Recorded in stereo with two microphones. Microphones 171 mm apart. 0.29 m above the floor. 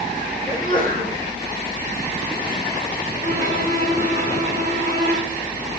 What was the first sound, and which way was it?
A sneeze, 55° right (ahead or behind).